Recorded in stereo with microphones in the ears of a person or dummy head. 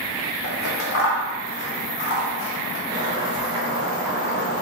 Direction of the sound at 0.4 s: 65° left (ahead or behind).